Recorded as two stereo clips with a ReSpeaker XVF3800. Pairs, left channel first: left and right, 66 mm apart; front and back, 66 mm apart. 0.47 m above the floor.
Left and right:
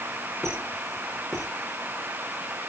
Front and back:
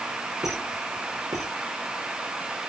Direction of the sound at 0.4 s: 175° left.